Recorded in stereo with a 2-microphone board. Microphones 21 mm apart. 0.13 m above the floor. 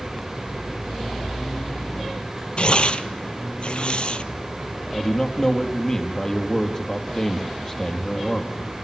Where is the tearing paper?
50° left (ahead or behind), 1.2 m.